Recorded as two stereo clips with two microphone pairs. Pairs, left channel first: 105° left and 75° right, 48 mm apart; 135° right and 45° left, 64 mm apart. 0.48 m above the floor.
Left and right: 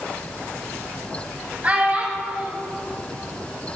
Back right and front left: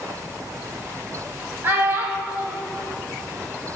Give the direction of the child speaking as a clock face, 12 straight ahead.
12 o'clock.